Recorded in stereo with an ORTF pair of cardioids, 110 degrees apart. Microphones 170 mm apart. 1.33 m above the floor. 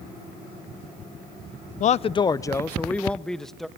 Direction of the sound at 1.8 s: 50° left.